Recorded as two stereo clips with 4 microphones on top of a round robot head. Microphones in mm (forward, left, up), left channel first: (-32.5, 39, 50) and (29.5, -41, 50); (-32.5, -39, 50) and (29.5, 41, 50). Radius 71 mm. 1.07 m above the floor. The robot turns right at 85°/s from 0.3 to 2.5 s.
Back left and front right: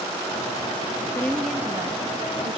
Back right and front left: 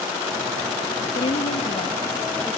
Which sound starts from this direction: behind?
A woman speaking, at 1.1 s.